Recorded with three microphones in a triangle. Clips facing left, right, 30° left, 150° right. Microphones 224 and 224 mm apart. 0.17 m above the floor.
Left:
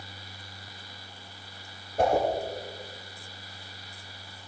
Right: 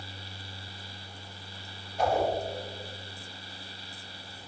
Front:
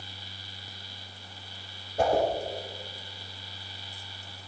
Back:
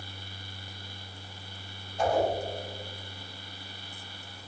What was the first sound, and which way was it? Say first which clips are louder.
A whoosh: left 3 dB, front 2 dB; 55° left.